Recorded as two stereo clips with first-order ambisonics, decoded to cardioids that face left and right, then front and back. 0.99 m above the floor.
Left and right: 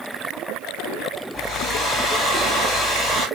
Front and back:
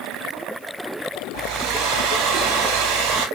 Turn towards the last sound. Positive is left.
turn(degrees=165)